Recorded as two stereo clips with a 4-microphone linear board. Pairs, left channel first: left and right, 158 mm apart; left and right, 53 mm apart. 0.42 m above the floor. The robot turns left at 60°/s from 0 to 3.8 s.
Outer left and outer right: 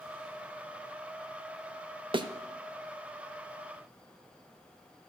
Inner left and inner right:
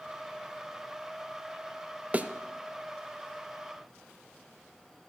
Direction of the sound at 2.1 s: 35° right (ahead or behind).